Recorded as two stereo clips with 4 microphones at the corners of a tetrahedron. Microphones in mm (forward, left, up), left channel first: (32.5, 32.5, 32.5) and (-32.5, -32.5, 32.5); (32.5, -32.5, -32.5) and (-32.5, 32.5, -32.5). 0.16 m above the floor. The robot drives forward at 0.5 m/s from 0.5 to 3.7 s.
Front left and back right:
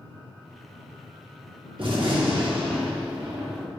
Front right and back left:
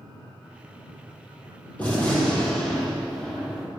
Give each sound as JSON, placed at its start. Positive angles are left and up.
{"t": 1.8, "sound": "a gunshot", "azimuth_deg": -115, "distance_m": 3.0}